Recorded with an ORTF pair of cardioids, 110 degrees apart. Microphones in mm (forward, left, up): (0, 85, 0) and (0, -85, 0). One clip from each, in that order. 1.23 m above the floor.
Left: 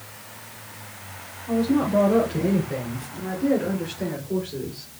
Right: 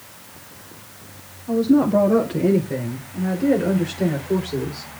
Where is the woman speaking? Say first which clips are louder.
Right 5 dB; 15° right, 5 m; by 4.9 s 40° right, 4.5 m.